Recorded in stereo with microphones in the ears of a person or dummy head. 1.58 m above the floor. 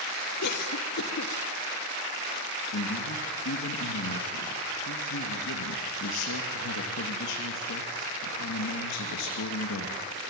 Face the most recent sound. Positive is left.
turn(degrees=75)  # may be behind; listen again after turning